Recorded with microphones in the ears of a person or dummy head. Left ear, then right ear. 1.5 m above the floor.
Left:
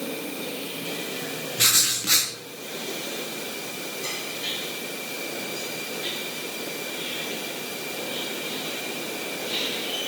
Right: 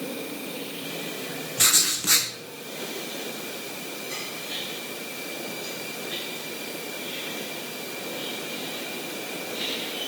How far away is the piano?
No piano in this recording.